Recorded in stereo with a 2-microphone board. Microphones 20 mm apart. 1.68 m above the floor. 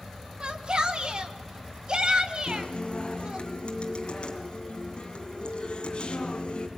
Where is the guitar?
50° left (ahead or behind), 2.5 m.